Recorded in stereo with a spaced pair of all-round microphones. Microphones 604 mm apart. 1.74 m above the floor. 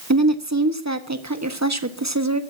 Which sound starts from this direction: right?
A woman speaking, at 0.1 s.